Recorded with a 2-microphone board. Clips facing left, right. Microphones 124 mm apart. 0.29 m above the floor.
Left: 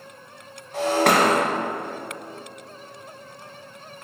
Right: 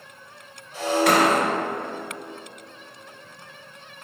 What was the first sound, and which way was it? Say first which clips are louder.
Breaking glass: left 1 dB; 65° left (ahead or behind).